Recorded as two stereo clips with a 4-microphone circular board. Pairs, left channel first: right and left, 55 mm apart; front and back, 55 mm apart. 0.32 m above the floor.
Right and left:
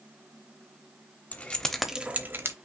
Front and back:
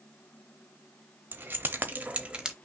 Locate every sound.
1.3 s keys jangling: 140° right, 0.9 m; by 2.5 s 110° left, 0.9 m